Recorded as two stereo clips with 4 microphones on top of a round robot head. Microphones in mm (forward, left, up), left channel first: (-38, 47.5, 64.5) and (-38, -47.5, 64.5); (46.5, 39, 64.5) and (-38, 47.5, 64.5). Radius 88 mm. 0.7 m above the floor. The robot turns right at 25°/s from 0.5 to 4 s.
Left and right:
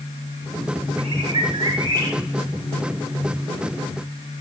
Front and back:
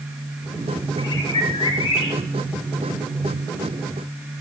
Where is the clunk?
No clunk in this recording.